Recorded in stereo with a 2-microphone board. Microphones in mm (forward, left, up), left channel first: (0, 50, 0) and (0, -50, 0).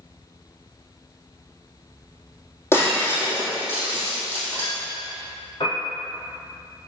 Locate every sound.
2.7 s breaking glass: 25° left (ahead or behind), 3 m
5.6 s a piano: 55° left (ahead or behind), 2 m